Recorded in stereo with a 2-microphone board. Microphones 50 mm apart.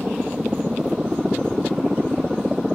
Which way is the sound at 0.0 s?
10° right (ahead or behind).